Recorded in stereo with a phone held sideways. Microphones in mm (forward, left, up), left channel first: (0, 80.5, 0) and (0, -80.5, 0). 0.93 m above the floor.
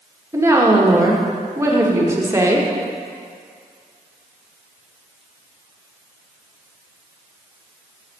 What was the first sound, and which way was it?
A woman speaking, 20° right (ahead or behind).